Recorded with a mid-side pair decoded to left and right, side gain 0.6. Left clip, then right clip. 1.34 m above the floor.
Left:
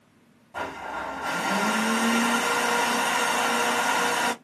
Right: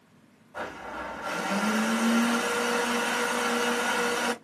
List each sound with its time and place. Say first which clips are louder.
0.5 s a blender: left 4 dB; 55° left, 2.5 m